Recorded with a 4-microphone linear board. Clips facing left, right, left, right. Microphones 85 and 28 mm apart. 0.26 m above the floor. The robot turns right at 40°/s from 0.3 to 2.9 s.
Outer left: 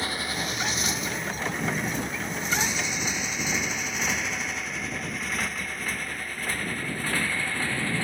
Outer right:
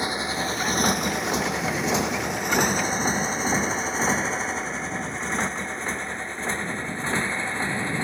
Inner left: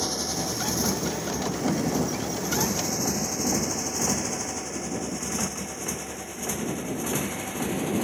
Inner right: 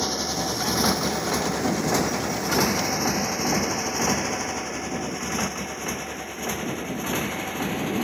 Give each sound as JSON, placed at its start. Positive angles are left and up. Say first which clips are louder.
{"t": 0.0, "sound": "a motorcycle", "louder": "outer right 4 dB, inner right 3 dB", "side_deg": -20}